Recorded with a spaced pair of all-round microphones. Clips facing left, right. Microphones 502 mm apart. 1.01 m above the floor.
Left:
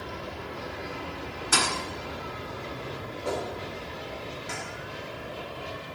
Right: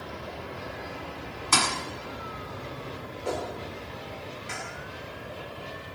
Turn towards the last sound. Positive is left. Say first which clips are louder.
# even
turn(degrees=65)  # may be behind; listen again after turning